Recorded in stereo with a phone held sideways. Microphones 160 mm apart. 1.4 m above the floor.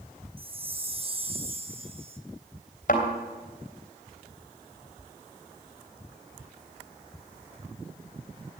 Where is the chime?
35° right (ahead or behind), 0.9 m.